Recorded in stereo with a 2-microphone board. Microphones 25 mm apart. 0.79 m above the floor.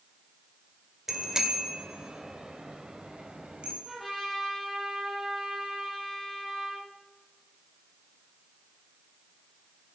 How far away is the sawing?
No sawing in this recording.